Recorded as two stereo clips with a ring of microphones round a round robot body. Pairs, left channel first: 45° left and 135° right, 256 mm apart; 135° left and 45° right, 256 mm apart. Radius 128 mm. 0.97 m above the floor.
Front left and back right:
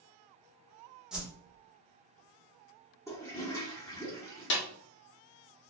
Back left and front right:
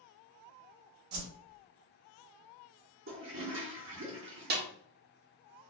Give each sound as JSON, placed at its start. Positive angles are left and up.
{"t": 1.1, "sound": "a whoosh", "azimuth_deg": -50, "distance_m": 0.7}
{"t": 3.1, "sound": "a toilet flushing", "azimuth_deg": -30, "distance_m": 1.1}
{"t": 4.5, "sound": "a snare drum", "azimuth_deg": 5, "distance_m": 0.7}